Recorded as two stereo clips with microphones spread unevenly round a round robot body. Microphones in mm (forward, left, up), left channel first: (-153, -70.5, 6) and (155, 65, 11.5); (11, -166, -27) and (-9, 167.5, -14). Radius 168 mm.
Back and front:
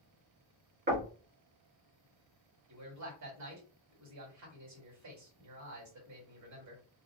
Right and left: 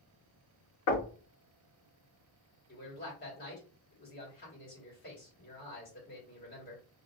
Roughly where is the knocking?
Ahead right.